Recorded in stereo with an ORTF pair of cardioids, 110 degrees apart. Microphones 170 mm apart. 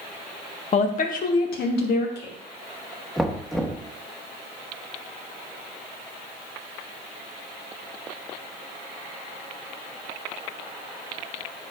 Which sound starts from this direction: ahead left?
A woman speaking, at 0.7 s.